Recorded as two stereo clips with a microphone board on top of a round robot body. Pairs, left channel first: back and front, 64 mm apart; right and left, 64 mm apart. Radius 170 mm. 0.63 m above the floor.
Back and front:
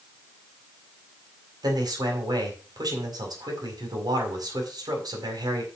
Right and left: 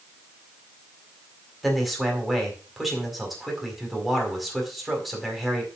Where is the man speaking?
Straight ahead, 4.5 m.